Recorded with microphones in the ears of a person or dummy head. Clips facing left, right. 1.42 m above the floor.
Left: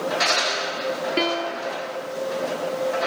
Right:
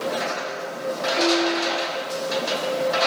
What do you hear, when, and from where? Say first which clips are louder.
1.2 s a piano: right 4 dB; 45° left (ahead or behind), 0.8 m